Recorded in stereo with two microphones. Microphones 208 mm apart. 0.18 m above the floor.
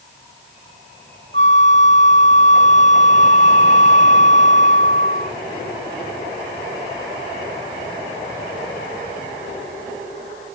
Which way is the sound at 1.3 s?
60° right (ahead or behind).